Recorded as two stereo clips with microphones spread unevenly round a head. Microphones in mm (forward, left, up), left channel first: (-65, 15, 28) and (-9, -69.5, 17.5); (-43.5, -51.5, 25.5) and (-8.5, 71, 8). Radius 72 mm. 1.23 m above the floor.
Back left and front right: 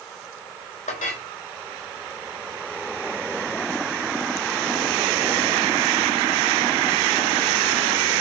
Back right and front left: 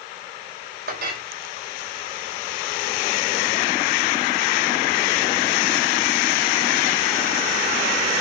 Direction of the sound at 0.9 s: 80° left.